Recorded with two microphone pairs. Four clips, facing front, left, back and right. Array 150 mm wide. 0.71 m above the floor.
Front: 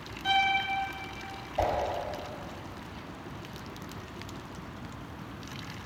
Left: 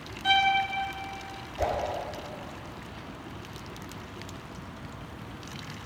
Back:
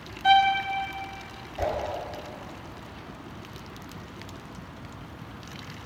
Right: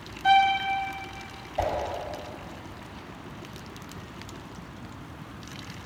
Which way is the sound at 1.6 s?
55° right.